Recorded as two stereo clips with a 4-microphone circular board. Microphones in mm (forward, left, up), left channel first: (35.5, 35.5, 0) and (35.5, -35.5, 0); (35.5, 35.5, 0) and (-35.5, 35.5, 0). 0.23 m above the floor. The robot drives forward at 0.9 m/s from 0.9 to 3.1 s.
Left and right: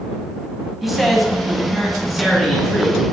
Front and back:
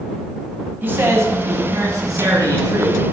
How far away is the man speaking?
About 1.1 m.